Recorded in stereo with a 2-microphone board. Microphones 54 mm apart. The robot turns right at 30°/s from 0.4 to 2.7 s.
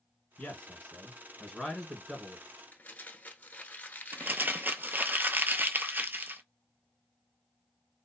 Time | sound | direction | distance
0.4 | a man speaking | 140° left | 1.6 m
2.7 | crumpling | 35° left (ahead or behind) | 0.9 m
4.1 | crumpling | 35° right (ahead or behind) | 0.6 m